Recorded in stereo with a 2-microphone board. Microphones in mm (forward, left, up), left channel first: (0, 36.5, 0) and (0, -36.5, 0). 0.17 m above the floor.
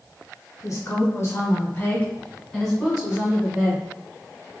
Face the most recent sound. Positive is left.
turn(degrees=-20)  # may be behind; listen again after turning